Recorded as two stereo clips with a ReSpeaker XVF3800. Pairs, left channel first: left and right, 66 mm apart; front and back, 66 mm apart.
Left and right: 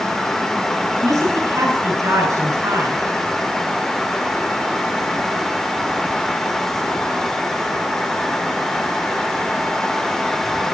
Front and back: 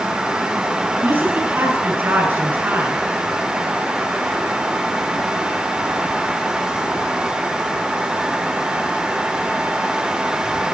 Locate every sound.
1.0 s a woman speaking: 125° right, 7 m